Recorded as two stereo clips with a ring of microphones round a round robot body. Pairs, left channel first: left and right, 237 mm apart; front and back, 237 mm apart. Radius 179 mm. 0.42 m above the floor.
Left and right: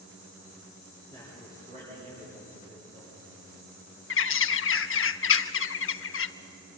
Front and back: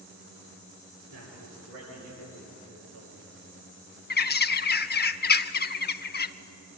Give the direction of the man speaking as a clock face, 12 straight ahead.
6 o'clock.